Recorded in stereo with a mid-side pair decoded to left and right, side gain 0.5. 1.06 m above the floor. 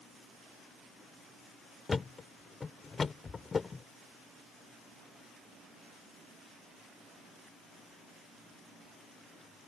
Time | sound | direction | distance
1.9 | a thud | 30° left | ?